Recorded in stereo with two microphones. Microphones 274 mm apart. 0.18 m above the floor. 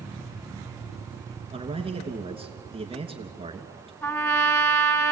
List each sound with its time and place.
1.5 s a man speaking: 20° right (ahead or behind), 2.5 m
4.0 s a trumpet: 10° left (ahead or behind), 1.2 m